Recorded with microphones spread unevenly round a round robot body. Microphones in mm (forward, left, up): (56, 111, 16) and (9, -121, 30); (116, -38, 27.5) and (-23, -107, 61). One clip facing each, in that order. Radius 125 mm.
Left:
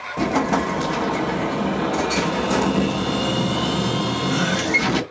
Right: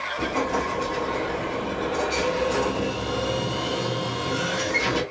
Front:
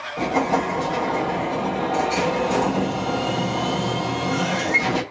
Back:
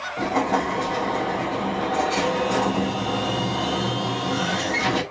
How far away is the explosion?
About 0.6 m.